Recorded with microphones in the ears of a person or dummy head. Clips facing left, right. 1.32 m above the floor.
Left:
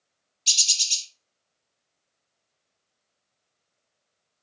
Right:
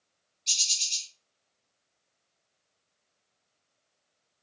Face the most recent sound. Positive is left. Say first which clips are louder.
# left 5 dB
turn(degrees=45)  # may be behind; listen again after turning